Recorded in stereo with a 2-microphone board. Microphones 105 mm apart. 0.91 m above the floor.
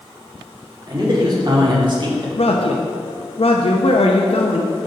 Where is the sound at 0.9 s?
40° right (ahead or behind), 2.5 m; by 2.3 s 50° right (ahead or behind), 1.4 m.